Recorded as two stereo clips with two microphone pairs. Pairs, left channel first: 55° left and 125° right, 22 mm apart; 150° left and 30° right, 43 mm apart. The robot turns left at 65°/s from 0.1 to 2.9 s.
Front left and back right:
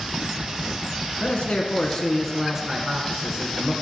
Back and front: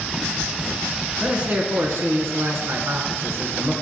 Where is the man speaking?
40° left, 1.5 m; by 3.7 s 70° right, 1.5 m.